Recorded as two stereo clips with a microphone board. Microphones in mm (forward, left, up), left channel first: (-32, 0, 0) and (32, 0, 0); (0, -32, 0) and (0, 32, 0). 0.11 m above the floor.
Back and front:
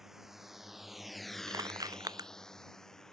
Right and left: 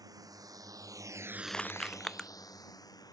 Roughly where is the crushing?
Ahead.